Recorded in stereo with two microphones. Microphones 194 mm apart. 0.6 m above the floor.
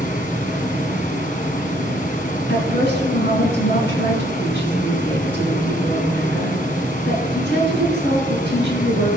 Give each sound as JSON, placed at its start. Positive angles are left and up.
{"t": 0.0, "sound": "running water", "side_deg": 50, "distance_m": 2.0}
{"t": 2.5, "sound": "a woman speaking", "side_deg": 75, "distance_m": 6.0}